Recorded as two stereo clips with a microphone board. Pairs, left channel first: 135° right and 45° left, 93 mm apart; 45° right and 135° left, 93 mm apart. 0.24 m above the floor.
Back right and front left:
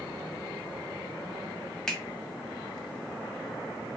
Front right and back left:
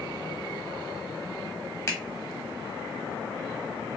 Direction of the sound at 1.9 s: 60° right.